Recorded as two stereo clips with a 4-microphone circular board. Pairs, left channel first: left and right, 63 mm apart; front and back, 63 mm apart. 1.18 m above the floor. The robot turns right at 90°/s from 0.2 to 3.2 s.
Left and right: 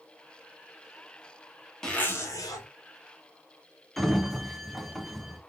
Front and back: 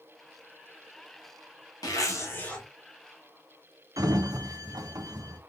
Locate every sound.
1.8 s a zipper: 10° left, 1.9 m; by 2.6 s 85° left, 1.9 m
4.0 s a sliding door: straight behind, 0.8 m